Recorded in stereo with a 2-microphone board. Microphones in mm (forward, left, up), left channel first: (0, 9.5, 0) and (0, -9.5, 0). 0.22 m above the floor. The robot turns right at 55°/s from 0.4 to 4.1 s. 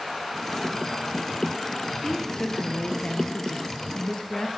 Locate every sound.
2.0 s a woman speaking: 30° left, 4 m; by 4.5 s 140° left, 4 m